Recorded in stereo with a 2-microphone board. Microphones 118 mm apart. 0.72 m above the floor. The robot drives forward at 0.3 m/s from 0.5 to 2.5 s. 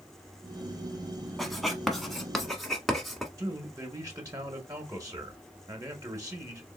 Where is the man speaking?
25° right (ahead or behind), 1.2 m.